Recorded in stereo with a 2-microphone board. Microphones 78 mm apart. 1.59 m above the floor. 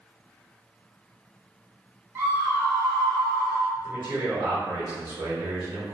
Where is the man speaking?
70° right (ahead or behind), 1.5 m.